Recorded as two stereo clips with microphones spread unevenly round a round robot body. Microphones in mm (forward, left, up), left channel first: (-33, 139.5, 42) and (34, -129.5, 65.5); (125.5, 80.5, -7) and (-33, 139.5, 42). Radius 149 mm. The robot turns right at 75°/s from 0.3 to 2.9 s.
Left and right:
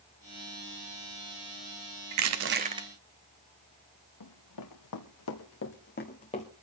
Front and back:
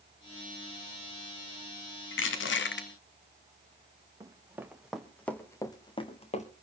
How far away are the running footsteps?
About 2.5 m.